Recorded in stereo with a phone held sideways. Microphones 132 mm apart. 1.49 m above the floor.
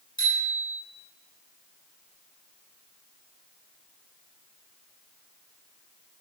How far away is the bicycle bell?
About 9.5 m.